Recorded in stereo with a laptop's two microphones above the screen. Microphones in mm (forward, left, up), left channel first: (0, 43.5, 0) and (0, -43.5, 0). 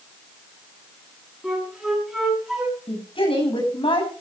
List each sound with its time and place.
1.4 s a flute: 5° right (ahead or behind), 6.5 m
2.9 s a woman speaking: 70° left (ahead or behind), 8 m